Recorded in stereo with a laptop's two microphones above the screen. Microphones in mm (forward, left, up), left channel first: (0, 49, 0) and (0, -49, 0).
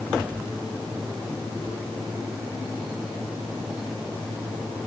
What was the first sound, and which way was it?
Only background noise.